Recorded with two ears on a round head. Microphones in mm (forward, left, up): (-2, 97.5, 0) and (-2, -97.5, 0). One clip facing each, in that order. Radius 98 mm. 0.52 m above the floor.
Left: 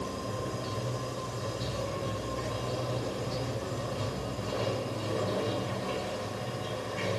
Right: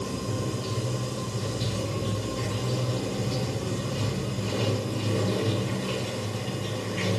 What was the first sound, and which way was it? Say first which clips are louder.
Running water: right 4 dB; 40° right (ahead or behind).